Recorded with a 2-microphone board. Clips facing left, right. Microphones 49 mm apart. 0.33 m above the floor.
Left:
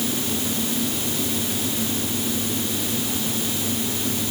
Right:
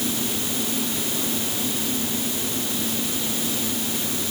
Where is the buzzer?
No buzzer in this recording.